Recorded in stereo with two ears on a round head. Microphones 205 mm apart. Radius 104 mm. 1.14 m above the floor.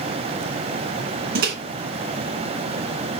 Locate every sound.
1.4 s a microwave: 40° right (ahead or behind), 1.2 m